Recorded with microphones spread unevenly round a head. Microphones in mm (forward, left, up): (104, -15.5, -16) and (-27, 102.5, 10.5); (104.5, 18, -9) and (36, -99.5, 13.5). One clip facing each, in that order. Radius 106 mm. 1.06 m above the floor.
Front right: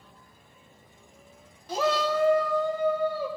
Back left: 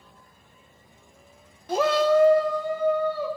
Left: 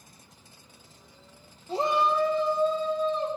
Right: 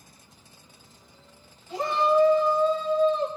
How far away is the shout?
About 0.9 m.